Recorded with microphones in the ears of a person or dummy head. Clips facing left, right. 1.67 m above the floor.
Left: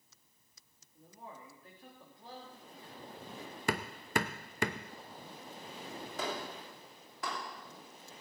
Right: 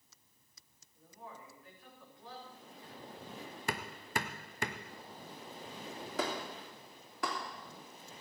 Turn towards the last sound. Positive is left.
turn(degrees=-55)  # may be behind; listen again after turning